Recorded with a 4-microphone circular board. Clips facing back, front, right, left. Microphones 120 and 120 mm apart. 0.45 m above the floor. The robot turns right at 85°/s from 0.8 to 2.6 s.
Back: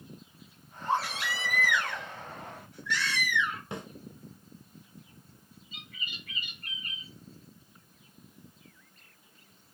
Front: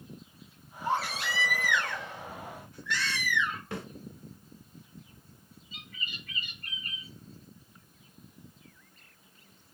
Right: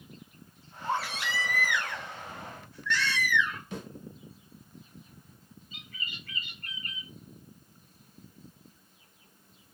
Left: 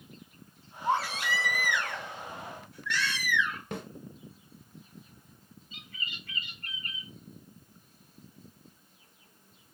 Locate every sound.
0.8 s a baby crying: 20° left, 1.9 m; by 3.6 s 170° left, 1.9 m
3.7 s a snare drum: 110° left, 0.6 m
5.7 s a bird: 155° left, 1.2 m